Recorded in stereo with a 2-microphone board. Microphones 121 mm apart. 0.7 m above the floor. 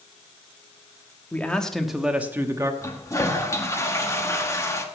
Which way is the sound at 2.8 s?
25° left (ahead or behind).